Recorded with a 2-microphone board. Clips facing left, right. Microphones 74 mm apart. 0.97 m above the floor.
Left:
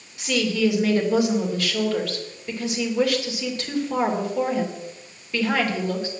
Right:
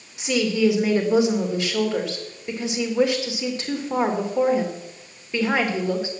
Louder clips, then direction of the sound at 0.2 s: Right 2 dB; 20° right (ahead or behind).